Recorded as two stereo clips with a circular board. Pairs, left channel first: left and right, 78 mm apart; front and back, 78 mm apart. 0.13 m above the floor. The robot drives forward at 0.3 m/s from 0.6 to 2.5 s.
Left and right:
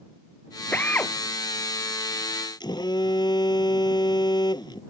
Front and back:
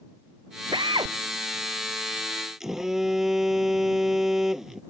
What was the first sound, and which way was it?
A drill, 160° left.